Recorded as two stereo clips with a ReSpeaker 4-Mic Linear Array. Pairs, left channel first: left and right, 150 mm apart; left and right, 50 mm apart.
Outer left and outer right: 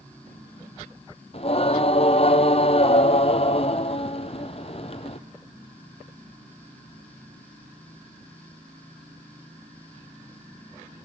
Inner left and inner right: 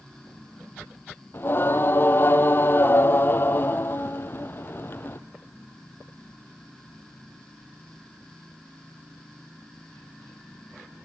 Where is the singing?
40° left (ahead or behind), 1.6 m.